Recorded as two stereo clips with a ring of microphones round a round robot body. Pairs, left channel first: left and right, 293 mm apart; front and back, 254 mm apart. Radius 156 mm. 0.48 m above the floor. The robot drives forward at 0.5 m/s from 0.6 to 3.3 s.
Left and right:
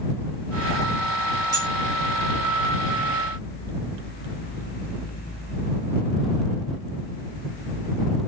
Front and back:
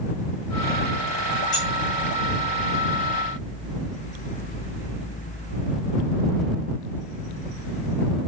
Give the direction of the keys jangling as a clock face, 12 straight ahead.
2 o'clock.